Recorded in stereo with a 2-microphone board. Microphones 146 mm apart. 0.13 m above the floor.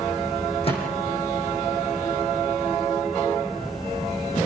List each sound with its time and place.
0.6 s a microwave: 40° left (ahead or behind), 6.5 m